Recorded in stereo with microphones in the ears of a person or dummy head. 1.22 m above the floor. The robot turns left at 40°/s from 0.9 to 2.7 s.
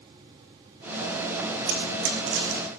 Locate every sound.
1.7 s running footsteps: 60° right (ahead or behind), 4.5 m